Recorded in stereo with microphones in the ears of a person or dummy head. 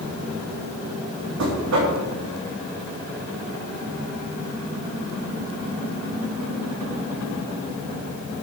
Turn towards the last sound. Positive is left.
turn(degrees=-75)  # may be behind; listen again after turning